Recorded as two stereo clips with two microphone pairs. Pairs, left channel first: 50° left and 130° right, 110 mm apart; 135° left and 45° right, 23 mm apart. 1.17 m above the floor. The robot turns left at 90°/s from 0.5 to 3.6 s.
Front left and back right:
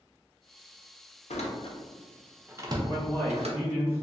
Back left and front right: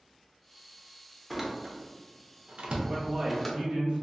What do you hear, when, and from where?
1.3 s a door slam: 50° left, 0.5 m; by 3.6 s 155° right, 0.5 m
2.9 s a man speaking: 10° left, 1.4 m; by 4.0 s 55° right, 1.4 m